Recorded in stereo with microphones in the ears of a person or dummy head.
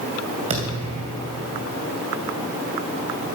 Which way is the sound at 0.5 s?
35° right (ahead or behind).